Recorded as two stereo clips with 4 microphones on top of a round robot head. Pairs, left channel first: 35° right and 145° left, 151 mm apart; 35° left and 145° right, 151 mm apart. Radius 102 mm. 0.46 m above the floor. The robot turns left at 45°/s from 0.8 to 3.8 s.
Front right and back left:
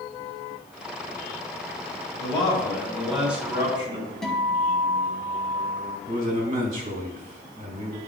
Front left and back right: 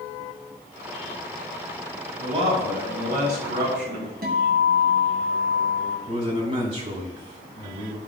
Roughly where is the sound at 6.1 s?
Behind.